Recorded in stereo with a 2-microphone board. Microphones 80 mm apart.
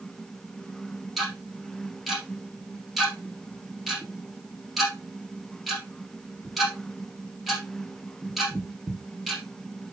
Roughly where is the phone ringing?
I don't hear a phone ringing.